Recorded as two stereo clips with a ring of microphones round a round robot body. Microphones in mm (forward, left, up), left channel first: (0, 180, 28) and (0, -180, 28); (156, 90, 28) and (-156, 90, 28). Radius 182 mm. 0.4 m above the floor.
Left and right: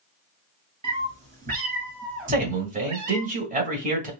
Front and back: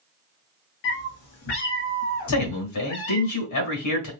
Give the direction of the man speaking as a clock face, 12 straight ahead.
1 o'clock.